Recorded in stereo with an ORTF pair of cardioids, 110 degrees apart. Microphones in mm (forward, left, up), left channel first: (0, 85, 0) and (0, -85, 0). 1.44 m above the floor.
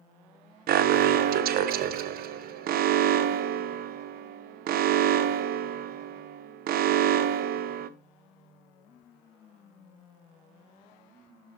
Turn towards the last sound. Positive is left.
turn(degrees=-60)